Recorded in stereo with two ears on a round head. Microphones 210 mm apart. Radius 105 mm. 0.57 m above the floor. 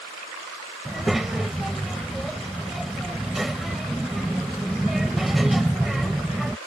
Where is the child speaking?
Centre (ahead or behind).